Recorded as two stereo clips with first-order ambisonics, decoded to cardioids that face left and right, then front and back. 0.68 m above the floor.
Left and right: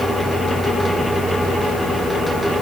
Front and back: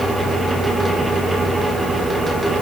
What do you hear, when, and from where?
Only background noise.